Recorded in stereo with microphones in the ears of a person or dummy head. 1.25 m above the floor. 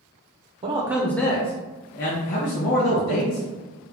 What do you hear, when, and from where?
0.6 s a man speaking: 30° right (ahead or behind), 0.7 m; by 3.5 s 70° left (ahead or behind), 1.8 m